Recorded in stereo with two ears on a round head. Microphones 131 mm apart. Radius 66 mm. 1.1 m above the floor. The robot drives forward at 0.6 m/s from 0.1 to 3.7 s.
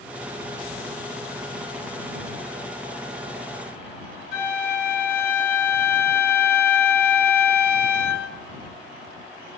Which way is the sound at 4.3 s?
60° left (ahead or behind).